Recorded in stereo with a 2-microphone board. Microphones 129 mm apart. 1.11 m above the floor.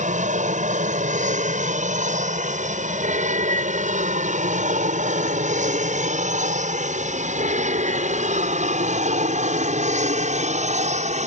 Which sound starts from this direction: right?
An aircraft, at 0.0 s.